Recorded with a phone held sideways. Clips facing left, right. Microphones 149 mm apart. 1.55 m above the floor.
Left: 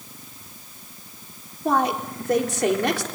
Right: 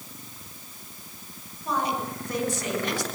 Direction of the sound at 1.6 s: 70° left (ahead or behind).